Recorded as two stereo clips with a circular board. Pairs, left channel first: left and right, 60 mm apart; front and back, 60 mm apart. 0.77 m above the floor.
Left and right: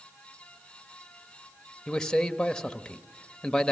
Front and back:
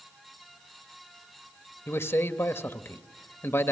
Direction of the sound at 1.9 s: 15° left.